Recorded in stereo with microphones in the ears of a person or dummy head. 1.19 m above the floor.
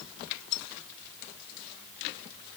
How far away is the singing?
I don't hear singing.